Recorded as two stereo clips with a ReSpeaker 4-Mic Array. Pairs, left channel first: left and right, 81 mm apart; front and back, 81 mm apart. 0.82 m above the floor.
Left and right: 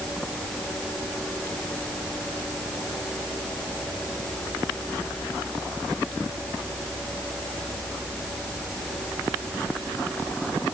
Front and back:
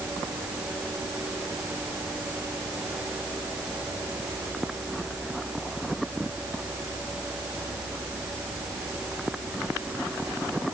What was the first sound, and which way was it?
Only background noise.